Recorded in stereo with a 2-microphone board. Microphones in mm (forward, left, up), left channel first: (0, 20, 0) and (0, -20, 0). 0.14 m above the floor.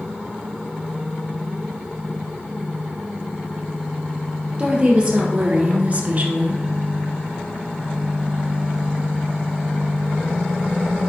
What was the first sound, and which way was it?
A woman speaking, 20° right (ahead or behind).